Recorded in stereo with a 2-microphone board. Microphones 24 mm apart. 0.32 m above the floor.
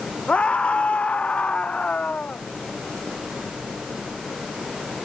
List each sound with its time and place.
0.3 s a scream: 50° left (ahead or behind); by 2.4 s 55° left (ahead or behind)